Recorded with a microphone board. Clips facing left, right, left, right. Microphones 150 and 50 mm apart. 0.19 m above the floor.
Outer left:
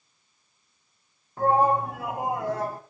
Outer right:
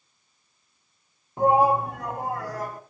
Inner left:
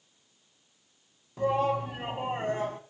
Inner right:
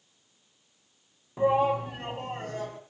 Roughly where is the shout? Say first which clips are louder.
Outer right 2 dB, inner right 3 dB; right.